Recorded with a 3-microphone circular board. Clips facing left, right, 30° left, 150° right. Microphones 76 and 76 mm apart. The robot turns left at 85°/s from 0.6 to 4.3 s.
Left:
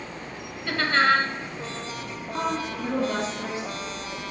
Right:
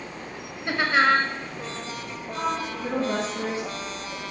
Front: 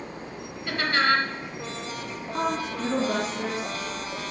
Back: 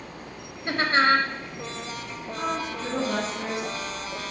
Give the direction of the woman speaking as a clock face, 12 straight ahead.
11 o'clock.